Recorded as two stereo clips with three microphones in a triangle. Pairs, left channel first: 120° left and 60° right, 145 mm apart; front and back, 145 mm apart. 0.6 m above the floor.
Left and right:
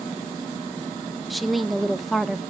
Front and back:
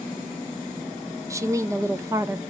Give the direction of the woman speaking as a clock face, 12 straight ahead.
5 o'clock.